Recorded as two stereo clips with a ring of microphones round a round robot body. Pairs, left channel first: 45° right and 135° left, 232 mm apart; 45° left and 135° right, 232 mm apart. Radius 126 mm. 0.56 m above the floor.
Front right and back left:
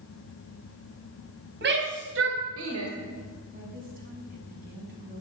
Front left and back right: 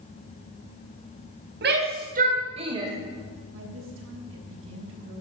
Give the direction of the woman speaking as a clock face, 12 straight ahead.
6 o'clock.